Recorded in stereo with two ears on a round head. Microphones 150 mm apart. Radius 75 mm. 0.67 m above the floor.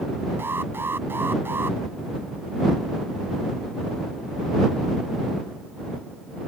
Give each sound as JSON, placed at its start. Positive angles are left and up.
{"t": 0.4, "sound": "an alarm", "side_deg": -15}